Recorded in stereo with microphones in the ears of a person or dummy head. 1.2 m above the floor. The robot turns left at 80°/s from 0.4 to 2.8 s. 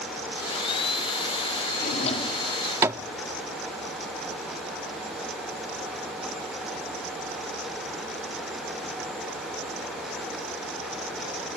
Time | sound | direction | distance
1.8 | a drawer | 55° left (ahead or behind) | ?